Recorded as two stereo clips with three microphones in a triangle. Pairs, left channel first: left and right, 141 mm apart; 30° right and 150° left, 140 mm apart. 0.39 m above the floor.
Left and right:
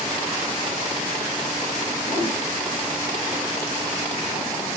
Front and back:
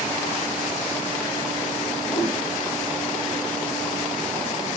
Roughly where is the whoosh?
Ahead left.